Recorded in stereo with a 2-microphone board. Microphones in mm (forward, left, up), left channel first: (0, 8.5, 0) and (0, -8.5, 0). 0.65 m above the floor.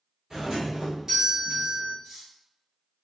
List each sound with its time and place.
0.3 s a doorbell: 40° right (ahead or behind), 1.6 m
2.0 s cutlery clinking: 40° right (ahead or behind), 1.8 m